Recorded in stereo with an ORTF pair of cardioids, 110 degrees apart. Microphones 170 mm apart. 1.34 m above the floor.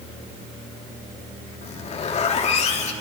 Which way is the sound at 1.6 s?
40° left.